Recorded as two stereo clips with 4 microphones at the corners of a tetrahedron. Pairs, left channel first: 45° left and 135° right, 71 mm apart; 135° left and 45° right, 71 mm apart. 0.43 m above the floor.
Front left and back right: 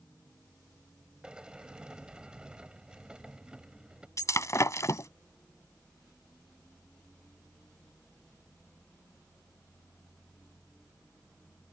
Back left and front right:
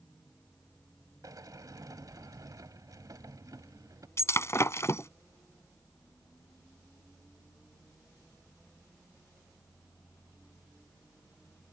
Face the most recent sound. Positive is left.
turn(degrees=90)